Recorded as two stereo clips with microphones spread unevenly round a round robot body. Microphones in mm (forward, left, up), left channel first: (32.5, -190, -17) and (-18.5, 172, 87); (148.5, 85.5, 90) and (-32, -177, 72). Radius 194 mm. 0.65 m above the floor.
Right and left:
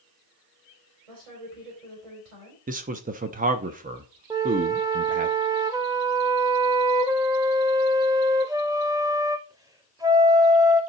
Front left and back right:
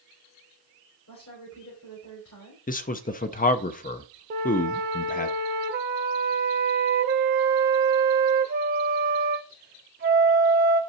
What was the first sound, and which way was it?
A woman speaking, 105° left.